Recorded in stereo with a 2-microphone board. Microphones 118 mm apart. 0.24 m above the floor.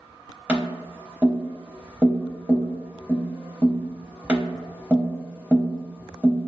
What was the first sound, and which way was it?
Tapping, 15° right (ahead or behind).